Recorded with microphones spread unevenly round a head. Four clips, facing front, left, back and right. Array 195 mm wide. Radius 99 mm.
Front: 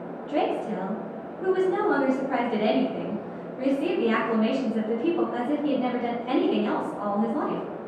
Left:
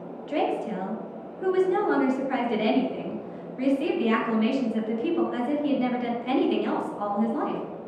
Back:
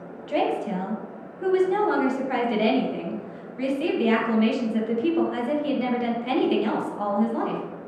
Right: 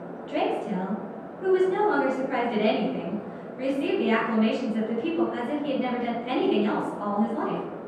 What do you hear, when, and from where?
0.3 s a woman speaking: 160° left, 1.2 m